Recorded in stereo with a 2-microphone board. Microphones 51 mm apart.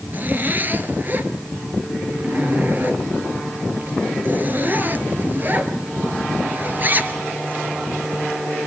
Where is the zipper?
35° right (ahead or behind), 1.8 m.